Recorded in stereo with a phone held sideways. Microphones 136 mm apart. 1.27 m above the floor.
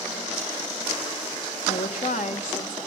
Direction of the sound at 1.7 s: 70° left (ahead or behind).